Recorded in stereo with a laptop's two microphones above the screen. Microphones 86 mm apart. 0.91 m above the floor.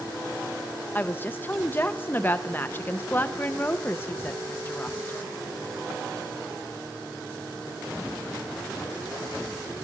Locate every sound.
0.9 s a woman speaking: 25° left (ahead or behind), 0.5 m